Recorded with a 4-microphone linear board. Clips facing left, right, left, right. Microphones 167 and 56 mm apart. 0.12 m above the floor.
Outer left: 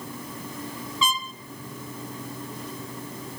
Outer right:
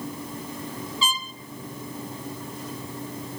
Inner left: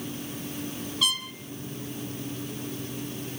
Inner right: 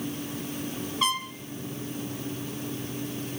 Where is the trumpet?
35° right (ahead or behind), 0.9 m.